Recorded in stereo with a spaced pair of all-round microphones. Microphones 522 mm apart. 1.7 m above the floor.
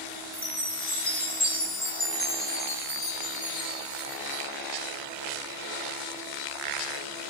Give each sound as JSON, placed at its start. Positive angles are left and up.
{"t": 0.3, "sound": "a chime", "side_deg": 70, "distance_m": 2.0}